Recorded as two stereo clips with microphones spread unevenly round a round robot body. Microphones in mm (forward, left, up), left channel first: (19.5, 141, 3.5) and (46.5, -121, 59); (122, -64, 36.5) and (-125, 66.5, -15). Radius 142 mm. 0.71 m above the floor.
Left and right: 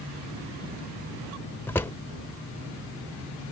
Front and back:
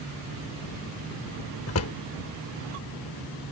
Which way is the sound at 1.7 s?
15° left.